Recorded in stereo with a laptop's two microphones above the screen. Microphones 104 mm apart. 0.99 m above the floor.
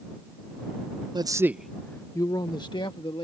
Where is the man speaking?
45° right (ahead or behind); by 3.2 s 50° left (ahead or behind).